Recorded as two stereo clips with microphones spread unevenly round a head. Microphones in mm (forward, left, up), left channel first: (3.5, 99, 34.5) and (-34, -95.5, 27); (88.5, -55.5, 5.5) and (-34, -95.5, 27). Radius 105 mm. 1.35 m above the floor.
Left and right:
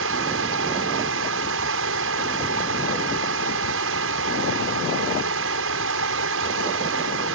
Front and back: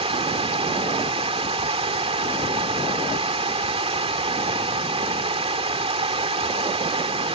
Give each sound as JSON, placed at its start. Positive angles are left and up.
{"t": 0.0, "sound": "running water", "azimuth_deg": -120}